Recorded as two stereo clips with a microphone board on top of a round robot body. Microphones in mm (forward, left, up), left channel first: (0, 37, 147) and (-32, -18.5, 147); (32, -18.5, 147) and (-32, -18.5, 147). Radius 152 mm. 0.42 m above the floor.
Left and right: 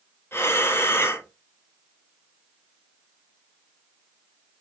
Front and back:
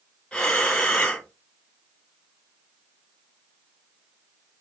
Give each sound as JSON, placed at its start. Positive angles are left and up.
{"t": 0.3, "sound": "breathing", "azimuth_deg": 65, "distance_m": 1.5}